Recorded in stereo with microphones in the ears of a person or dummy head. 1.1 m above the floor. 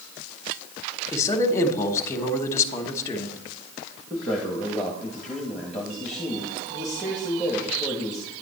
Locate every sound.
1.1 s a man speaking: 15° left (ahead or behind), 1.3 m
4.1 s a man speaking: 5° left (ahead or behind), 1.6 m